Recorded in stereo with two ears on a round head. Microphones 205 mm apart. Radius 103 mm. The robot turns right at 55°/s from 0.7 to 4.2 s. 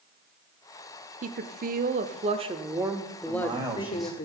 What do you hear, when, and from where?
1.2 s a woman speaking: 110° right, 0.9 m; by 4.3 s 55° left, 0.9 m
3.3 s a man speaking: 40° right, 2.5 m; by 4.2 s 10° left, 2.5 m